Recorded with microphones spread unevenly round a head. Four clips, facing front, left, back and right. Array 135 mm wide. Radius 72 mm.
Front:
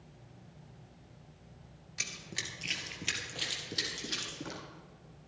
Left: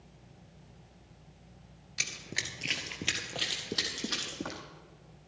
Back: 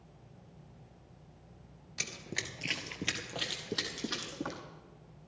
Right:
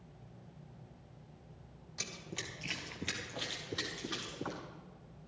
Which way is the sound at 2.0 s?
160° right.